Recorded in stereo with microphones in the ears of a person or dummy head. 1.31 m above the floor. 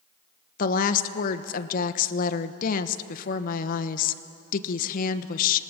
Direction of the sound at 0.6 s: 45° left (ahead or behind).